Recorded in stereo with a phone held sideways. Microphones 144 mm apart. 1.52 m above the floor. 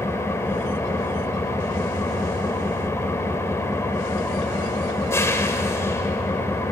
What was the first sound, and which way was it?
An engine running, 20° left (ahead or behind).